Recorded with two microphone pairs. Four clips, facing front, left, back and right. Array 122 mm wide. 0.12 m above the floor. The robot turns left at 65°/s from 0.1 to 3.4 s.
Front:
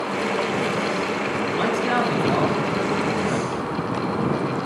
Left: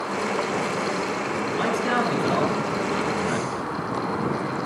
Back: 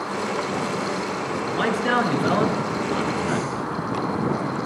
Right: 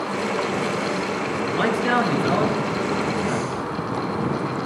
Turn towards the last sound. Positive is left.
turn(degrees=125)